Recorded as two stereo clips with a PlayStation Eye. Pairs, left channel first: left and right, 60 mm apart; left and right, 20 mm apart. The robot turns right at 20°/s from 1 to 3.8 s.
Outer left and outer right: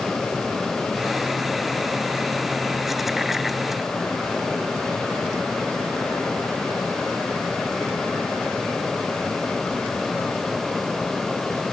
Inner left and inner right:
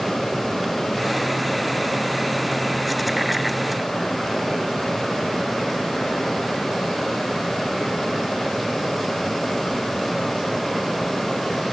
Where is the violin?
I don't hear a violin.